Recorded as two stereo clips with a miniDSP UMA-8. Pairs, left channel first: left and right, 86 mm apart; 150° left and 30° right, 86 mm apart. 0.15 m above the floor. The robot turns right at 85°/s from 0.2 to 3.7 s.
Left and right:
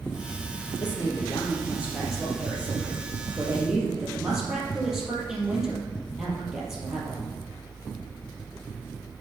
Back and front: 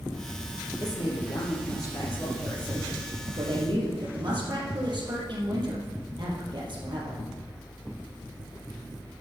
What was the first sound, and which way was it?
A woman speaking, 105° left.